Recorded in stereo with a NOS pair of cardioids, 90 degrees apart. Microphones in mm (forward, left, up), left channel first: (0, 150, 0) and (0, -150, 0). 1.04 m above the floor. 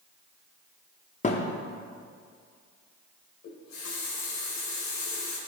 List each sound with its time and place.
1.2 s a thud: 25° left, 1.1 m
3.4 s a running tap: 60° left, 3.5 m